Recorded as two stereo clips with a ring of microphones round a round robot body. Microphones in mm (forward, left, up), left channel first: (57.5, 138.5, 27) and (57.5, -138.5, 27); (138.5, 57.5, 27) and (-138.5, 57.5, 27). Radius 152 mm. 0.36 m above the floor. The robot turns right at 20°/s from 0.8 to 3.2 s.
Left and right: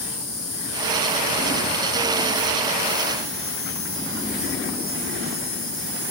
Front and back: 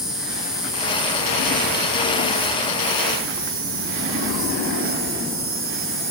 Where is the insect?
90° left, 4.5 m; by 6.1 s 140° left, 4.5 m.